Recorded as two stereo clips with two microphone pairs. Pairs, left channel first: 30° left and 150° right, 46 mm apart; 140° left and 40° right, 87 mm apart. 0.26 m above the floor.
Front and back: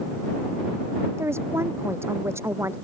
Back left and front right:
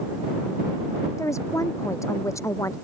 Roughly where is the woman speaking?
Behind.